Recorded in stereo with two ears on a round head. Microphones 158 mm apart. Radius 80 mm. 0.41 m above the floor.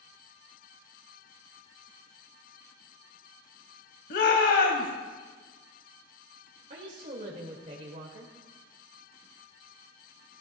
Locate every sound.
4.1 s a shout: 65° left (ahead or behind), 2 m
6.7 s a woman speaking: 45° right (ahead or behind), 1.8 m